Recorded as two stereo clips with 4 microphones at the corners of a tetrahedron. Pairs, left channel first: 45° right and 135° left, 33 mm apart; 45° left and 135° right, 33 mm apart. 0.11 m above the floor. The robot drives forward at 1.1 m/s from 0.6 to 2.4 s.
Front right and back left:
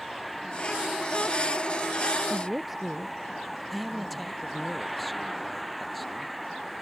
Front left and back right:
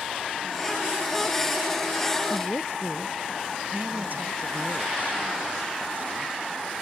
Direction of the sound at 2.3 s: 50° left.